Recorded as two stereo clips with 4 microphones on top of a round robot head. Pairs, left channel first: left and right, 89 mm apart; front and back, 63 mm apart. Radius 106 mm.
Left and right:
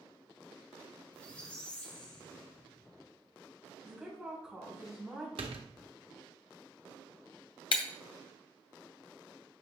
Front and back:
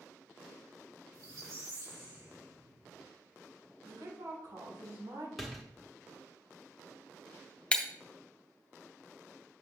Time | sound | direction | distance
1.1 | a squeak | 160° left | 3 m
3.8 | a woman speaking | 170° right | 3.5 m
5.4 | a door slam | 90° right | 1.0 m
7.7 | breaking glass | 70° left | 0.6 m